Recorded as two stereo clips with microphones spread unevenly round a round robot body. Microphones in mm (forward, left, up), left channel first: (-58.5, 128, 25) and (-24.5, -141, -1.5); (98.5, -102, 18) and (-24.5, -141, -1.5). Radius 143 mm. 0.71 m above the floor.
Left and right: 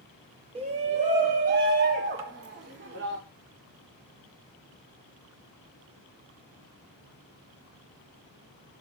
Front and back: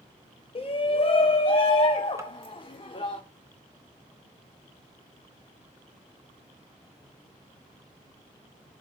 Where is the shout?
20° right, 1.4 m; by 3.2 s 35° right, 3 m.